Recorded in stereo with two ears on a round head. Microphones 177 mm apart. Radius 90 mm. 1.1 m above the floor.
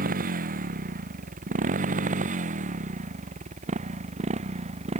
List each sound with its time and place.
0.0 s a motorcycle: 45° right (ahead or behind); by 5.0 s 35° right (ahead or behind)